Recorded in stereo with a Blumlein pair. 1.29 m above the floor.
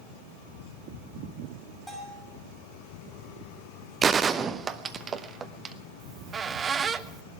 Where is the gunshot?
20° right, 0.8 m.